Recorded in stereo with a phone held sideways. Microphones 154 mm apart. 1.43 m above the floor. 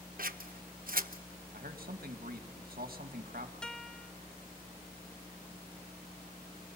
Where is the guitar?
5° left (ahead or behind), 0.6 m.